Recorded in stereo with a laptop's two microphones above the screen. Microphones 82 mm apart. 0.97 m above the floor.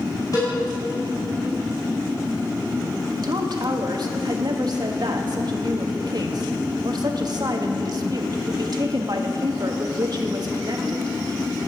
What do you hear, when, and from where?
0.3 s a cowbell: 45° left (ahead or behind), 5 m
3.2 s a woman speaking: 55° right (ahead or behind), 1.4 m